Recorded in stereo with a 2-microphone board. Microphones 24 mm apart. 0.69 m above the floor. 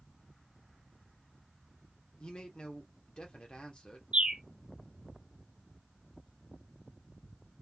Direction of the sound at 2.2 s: 45° left (ahead or behind).